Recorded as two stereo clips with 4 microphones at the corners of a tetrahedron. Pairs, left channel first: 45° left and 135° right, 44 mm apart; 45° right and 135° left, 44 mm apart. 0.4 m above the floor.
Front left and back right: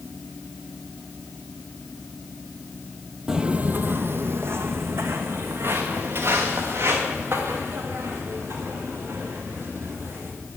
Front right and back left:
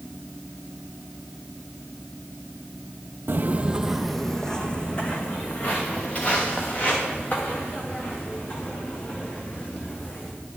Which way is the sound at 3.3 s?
155° left.